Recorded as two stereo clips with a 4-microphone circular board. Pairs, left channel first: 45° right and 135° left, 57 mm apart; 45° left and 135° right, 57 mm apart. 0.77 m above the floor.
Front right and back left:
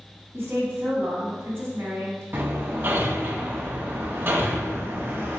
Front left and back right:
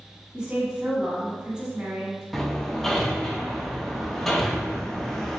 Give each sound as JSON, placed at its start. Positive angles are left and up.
{"t": 0.3, "sound": "a woman speaking", "azimuth_deg": 160, "distance_m": 1.2}
{"t": 2.3, "sound": "hammering", "azimuth_deg": 130, "distance_m": 0.6}